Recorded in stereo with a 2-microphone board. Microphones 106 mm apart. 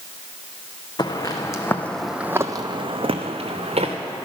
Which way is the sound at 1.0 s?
40° left (ahead or behind).